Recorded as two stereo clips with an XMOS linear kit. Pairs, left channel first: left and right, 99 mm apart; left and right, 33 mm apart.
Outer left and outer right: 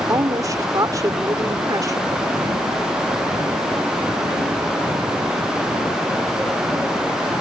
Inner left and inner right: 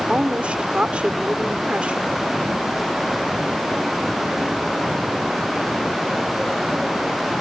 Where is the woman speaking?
35° right (ahead or behind).